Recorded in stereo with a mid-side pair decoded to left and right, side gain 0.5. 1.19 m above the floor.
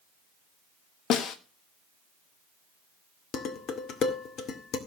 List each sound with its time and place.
1.1 s a snare drum: 65° left, 1.3 m
3.3 s dishes clattering: 65° left, 2.0 m